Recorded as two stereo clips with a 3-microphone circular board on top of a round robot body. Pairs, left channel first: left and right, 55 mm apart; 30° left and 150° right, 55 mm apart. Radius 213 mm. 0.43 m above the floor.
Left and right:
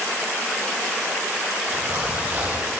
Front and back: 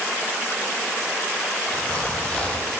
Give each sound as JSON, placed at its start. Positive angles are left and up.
{"t": 1.7, "sound": "a zipper", "azimuth_deg": -35, "distance_m": 3.5}